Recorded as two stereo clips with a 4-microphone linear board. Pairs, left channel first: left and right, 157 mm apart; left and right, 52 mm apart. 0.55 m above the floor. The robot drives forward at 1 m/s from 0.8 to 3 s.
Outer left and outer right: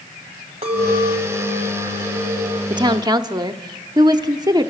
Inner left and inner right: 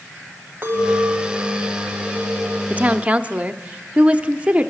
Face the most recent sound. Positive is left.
turn(degrees=-25)  # may be behind; listen again after turning